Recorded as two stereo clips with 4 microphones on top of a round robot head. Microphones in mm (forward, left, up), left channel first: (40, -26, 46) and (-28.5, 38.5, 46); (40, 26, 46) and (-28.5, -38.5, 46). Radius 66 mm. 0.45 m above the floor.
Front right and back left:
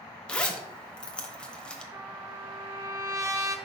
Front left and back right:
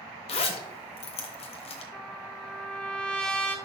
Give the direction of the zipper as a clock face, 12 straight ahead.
11 o'clock.